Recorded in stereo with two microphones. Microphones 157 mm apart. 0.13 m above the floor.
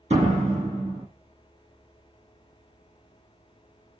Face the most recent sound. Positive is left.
turn(degrees=-45)  # may be behind; listen again after turning